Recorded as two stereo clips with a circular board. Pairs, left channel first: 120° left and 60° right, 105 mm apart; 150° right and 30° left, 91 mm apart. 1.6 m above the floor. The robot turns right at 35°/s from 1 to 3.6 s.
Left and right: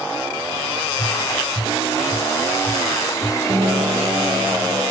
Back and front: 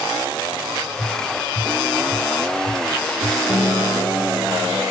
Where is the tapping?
175° left, 1.7 m; by 3.4 s 100° right, 1.7 m.